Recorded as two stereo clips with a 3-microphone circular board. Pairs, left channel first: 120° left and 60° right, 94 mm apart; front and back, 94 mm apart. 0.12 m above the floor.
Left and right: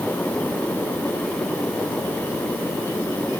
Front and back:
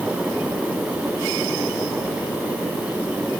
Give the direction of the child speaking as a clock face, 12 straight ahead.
I don't hear a child speaking.